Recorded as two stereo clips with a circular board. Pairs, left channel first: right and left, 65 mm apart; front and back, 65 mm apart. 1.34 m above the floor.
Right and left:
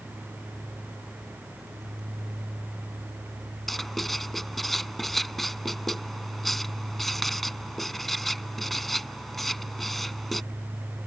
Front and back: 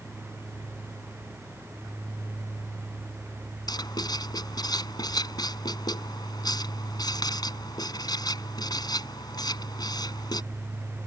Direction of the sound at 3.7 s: Straight ahead.